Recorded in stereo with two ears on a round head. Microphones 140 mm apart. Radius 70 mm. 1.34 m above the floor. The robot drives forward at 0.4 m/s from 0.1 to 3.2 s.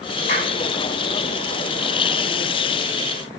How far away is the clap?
About 9 m.